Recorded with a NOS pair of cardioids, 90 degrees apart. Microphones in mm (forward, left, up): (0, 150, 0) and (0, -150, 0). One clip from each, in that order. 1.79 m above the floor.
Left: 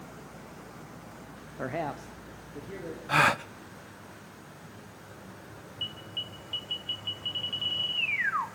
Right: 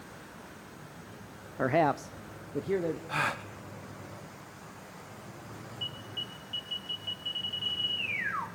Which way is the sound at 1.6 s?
20° right.